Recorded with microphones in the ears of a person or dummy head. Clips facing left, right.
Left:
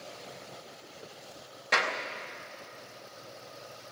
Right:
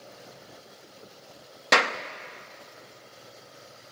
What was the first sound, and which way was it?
A clap, 75° right (ahead or behind).